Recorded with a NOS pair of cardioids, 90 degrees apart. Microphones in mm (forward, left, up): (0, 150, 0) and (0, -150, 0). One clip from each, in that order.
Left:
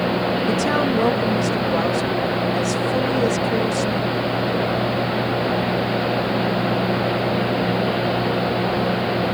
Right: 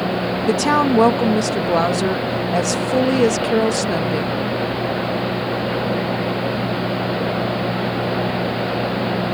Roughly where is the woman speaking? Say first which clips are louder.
Right 7 dB; ahead right.